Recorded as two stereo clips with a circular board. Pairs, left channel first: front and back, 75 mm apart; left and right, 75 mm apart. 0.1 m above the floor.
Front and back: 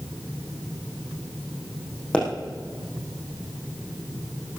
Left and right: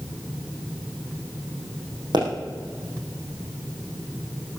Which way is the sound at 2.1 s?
75° right.